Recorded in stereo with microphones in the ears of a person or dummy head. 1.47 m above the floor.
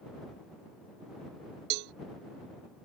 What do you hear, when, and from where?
1.7 s a cowbell: 55° right (ahead or behind)